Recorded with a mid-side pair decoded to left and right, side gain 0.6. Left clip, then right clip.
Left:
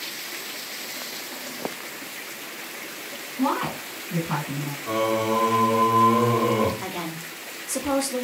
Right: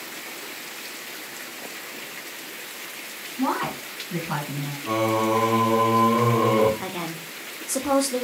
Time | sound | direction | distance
3.4 | a woman speaking | straight ahead | 1.2 m
4.9 | singing | 15° right | 0.8 m
6.8 | a woman speaking | 10° right | 0.6 m